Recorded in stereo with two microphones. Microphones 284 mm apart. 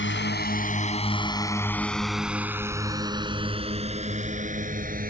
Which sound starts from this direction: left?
A drone, at 0.0 s.